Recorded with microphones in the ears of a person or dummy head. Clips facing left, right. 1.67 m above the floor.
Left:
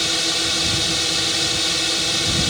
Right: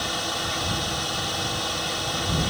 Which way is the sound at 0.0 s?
30° left (ahead or behind).